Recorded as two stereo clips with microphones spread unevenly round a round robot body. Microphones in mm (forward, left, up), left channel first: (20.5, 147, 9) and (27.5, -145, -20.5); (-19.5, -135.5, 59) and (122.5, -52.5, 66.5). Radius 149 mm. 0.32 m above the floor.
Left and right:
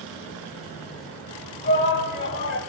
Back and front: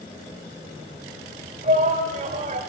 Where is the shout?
50° left, 1.4 m.